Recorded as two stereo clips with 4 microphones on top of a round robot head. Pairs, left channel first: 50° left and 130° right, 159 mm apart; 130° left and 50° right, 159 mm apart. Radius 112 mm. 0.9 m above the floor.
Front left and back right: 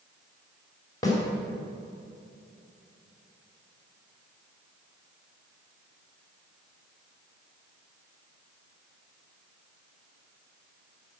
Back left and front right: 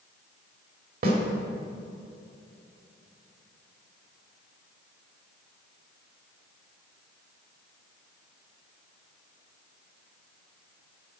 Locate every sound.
1.0 s a snare drum: 20° right, 3 m